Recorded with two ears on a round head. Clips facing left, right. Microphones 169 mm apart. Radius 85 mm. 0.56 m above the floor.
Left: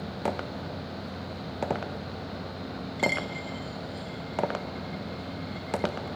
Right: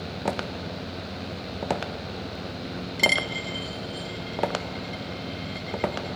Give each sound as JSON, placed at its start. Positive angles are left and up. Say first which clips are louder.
{"t": 3.0, "sound": "a dropped coin", "louder": "right 1 dB", "side_deg": -50, "distance_m": 1.1}